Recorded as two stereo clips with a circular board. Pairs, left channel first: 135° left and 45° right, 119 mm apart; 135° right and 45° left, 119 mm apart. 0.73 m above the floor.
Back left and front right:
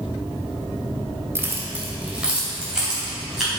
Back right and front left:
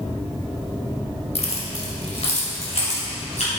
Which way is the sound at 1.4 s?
110° right.